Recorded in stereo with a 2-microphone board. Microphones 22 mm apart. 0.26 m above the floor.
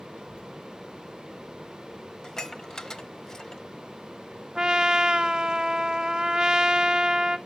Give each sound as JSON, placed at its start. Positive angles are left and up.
{"t": 0.1, "sound": "a child speaking", "side_deg": 70, "distance_m": 4.0}
{"t": 2.2, "sound": "dishes clattering", "side_deg": 25, "distance_m": 0.7}
{"t": 4.5, "sound": "a trumpet", "side_deg": -35, "distance_m": 0.6}